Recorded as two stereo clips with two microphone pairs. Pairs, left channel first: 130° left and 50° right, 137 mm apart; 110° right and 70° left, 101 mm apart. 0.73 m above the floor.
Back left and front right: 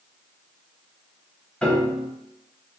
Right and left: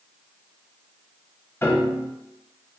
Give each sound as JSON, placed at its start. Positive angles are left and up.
{"t": 1.6, "sound": "a piano", "azimuth_deg": -160, "distance_m": 0.6}